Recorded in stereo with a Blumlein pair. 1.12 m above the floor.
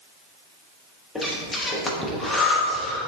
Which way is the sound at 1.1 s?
10° left.